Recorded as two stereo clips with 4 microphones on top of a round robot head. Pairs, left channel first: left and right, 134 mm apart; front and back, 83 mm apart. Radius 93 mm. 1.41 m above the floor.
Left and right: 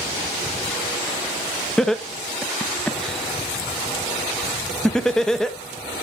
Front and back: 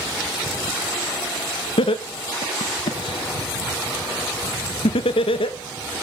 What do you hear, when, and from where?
1.8 s laughter: 5° left, 0.7 m